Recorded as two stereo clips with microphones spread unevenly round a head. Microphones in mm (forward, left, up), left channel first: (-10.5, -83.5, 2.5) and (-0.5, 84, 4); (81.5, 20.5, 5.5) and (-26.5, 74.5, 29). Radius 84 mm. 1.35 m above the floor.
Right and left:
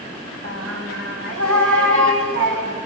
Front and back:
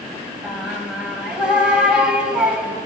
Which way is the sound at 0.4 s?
75° left.